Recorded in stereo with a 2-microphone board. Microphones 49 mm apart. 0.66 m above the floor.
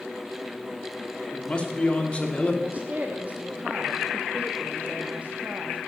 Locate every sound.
1.3 s a man speaking: 25° left (ahead or behind), 1.8 m
2.6 s a woman speaking: 30° right (ahead or behind), 1.2 m